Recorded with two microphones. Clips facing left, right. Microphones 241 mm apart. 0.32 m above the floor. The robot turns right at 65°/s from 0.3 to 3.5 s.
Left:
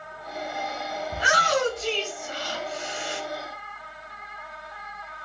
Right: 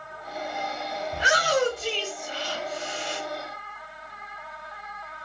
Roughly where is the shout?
Left.